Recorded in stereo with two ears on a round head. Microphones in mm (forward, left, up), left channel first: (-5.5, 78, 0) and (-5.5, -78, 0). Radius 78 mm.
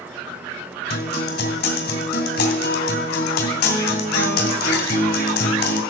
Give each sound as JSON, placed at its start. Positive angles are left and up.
{"t": 0.9, "sound": "a guitar", "side_deg": 55, "distance_m": 2.5}